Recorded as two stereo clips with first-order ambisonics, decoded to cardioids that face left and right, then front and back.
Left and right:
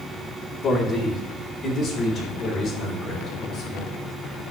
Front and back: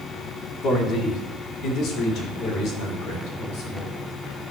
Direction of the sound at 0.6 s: 30° left.